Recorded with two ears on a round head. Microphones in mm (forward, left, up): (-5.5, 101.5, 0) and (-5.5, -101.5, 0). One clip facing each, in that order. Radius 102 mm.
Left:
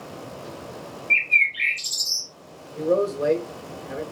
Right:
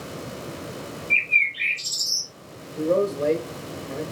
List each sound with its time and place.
1.1 s a bird: 25° left (ahead or behind), 0.9 m
2.8 s a man speaking: 20° left (ahead or behind), 0.9 m